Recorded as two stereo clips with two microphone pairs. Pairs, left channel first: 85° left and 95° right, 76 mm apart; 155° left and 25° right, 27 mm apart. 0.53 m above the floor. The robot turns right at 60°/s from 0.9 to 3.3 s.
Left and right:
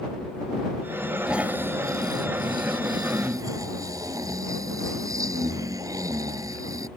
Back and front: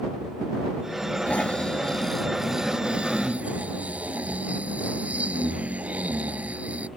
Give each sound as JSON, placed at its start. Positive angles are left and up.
{"t": 1.3, "sound": "snoring", "azimuth_deg": -175}